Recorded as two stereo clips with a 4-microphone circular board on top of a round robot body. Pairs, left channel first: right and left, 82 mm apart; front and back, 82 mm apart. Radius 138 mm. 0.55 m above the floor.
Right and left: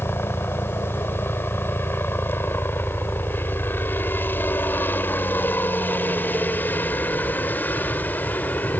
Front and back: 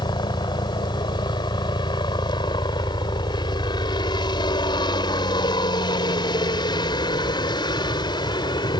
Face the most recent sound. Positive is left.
turn(degrees=-20)